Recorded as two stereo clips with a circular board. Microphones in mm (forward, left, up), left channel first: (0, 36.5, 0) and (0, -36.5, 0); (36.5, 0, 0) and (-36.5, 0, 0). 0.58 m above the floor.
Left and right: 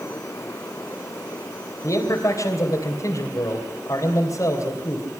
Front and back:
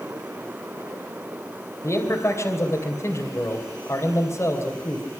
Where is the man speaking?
50° left, 3 m.